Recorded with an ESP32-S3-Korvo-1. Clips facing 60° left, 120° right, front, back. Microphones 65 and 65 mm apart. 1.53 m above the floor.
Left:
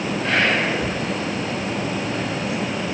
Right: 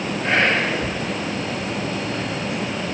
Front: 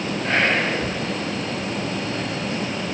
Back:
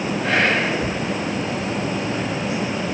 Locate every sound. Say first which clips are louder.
0.2 s whispering: right 1 dB, back 1 dB; 175° left, 3 m